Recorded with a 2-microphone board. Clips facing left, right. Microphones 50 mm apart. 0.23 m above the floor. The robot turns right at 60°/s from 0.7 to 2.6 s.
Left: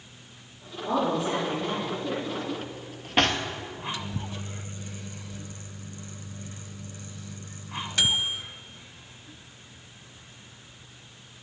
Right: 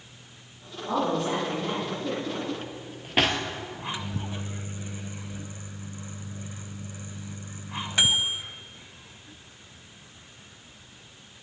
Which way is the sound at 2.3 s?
25° right (ahead or behind).